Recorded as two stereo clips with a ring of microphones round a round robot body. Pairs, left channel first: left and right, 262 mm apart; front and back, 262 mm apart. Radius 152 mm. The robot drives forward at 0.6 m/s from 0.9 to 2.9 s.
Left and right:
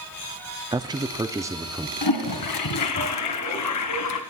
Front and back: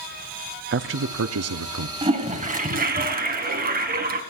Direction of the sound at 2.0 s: 110° left.